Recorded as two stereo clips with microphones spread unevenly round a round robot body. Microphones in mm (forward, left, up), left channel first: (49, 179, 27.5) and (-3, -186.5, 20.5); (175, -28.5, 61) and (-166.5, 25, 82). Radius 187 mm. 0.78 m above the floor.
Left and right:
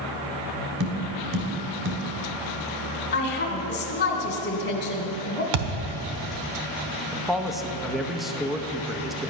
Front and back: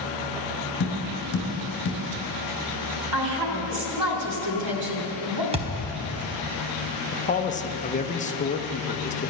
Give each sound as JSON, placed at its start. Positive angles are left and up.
{"t": 0.8, "sound": "tapping", "azimuth_deg": -60, "distance_m": 2.5}
{"t": 3.1, "sound": "a woman speaking", "azimuth_deg": 145, "distance_m": 2.5}
{"t": 5.5, "sound": "a thud", "azimuth_deg": -115, "distance_m": 0.9}
{"t": 7.1, "sound": "a man speaking", "azimuth_deg": -10, "distance_m": 0.8}